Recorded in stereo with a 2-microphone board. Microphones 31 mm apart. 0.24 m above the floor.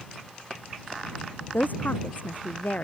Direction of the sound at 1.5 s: 60° left (ahead or behind).